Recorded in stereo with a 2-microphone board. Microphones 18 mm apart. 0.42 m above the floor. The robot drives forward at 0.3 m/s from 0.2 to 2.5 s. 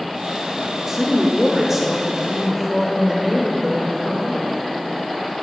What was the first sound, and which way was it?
A woman speaking, 20° right (ahead or behind).